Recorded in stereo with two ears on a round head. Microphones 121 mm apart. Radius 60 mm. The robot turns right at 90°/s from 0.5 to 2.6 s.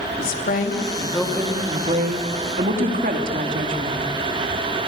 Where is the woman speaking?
105° left, 3 m; by 4.0 s 65° right, 3 m.